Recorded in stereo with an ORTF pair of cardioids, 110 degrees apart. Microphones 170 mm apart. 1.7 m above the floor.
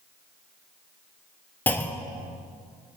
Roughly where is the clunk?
Ahead.